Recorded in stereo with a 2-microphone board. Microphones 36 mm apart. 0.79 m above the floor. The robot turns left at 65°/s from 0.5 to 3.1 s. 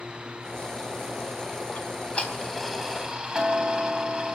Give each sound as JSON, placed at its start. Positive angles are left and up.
{"t": 1.8, "sound": "ticking", "azimuth_deg": 60, "distance_m": 3.5}